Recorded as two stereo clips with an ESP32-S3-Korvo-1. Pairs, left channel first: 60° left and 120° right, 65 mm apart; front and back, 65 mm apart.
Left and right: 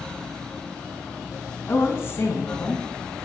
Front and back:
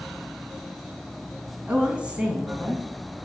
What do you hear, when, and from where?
1.7 s a woman speaking: 105° left, 2.5 m